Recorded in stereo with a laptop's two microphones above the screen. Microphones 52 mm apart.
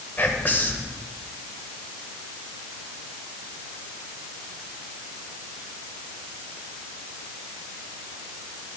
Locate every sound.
0.2 s whispering: 35° left (ahead or behind), 0.9 m